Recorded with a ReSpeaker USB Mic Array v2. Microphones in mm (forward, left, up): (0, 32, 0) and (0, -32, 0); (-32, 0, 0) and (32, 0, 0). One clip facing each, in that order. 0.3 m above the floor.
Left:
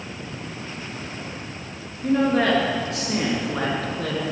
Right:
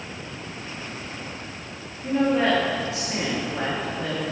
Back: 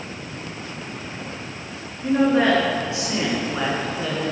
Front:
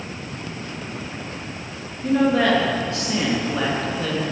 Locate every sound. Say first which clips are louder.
2.0 s a woman speaking: left 2 dB, even; 110° left, 4.5 m; by 4.2 s 105° left, 3.5 m